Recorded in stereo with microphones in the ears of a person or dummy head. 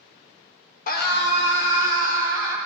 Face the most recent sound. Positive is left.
turn(degrees=85)